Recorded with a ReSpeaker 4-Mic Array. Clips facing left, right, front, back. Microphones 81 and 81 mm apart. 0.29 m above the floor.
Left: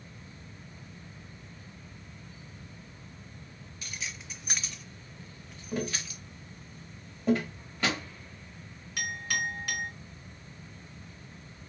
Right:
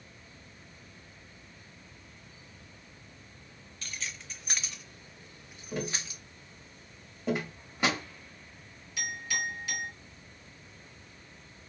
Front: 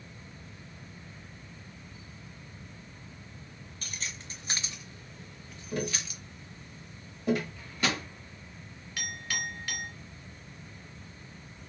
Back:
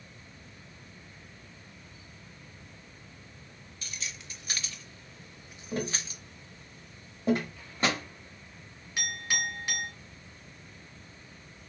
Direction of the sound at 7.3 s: 155° right.